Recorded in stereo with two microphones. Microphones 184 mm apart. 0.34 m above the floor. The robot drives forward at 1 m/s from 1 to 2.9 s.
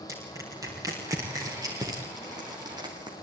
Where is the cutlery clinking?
I don't hear cutlery clinking.